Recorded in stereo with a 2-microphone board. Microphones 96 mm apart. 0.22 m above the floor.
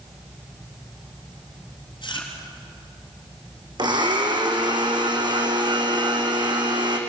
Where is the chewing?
50° left (ahead or behind), 3.5 m.